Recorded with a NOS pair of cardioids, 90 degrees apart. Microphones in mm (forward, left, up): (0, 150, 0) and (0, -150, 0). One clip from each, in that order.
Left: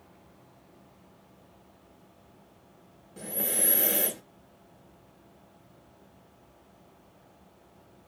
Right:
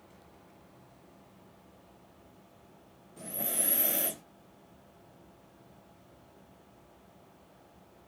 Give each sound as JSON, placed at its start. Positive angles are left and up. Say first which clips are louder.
{"t": 3.2, "sound": "breathing", "louder": "left 4 dB", "azimuth_deg": 60, "distance_m": 1.8}